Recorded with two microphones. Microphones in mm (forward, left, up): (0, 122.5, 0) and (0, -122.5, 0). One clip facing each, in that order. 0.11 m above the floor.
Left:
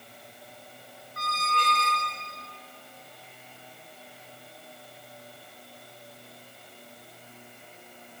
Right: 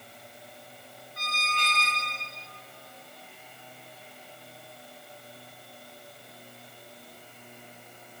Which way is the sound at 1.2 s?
55° left (ahead or behind).